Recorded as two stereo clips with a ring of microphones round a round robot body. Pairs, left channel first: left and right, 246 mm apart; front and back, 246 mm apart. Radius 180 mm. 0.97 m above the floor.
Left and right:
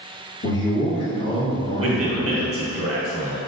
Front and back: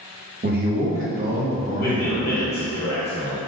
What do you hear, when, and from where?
0.4 s a man speaking: 130° left, 1.0 m; by 2.8 s 120° left, 2.5 m
1.8 s a man speaking: 60° right, 1.2 m